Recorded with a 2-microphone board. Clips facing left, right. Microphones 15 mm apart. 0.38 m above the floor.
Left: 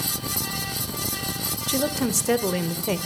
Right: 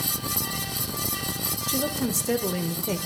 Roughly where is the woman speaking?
Left.